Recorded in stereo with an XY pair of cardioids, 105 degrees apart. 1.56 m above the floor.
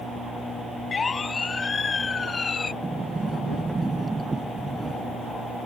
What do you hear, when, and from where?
0.9 s a siren: 35° left; by 2.7 s 30° left
2.8 s a sliding door: 20° right